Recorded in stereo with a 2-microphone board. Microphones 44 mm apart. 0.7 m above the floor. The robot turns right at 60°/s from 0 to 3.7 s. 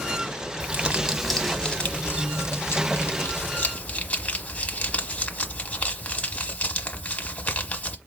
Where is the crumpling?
40° right, 1.0 m; by 8.0 s 145° left, 1.0 m.